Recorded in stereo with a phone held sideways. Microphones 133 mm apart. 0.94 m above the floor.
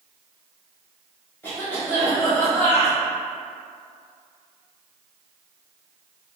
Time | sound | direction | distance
1.4 | a cough | 15° left (ahead or behind) | 0.9 m